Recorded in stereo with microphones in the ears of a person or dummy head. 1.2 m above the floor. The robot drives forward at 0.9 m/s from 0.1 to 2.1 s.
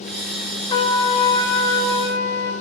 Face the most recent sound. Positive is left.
turn(degrees=15)  # may be behind; listen again after turning